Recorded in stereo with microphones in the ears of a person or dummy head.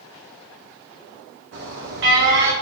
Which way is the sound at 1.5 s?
55° right (ahead or behind).